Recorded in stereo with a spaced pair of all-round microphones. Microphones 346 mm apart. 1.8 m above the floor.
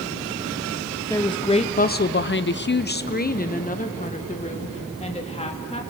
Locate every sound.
1.1 s a woman speaking: 10° left (ahead or behind), 1.0 m; by 5.8 s 20° left (ahead or behind), 3 m